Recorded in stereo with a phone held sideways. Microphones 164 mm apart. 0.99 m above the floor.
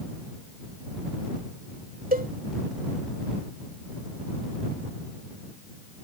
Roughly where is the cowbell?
Right.